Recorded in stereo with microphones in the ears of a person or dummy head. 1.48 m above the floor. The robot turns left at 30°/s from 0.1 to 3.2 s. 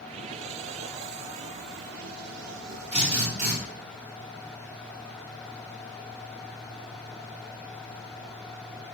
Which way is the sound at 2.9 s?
30° right (ahead or behind).